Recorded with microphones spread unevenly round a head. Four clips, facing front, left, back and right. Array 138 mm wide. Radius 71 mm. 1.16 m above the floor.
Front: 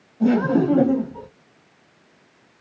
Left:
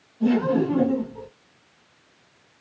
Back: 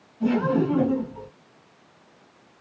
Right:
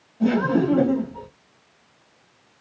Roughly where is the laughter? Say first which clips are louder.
Right 1 dB, front 4 dB; ahead right.